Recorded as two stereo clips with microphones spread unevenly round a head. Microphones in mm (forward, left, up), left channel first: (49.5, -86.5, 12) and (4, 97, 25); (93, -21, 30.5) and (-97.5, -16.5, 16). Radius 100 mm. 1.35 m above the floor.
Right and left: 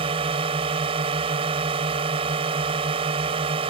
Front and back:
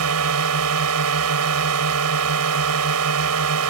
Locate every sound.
0.0 s a drone: 170° left